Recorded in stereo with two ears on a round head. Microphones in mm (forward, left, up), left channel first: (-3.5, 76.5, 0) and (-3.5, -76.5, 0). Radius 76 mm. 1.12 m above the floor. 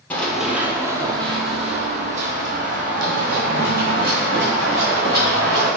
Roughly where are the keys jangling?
I don't hear keys jangling.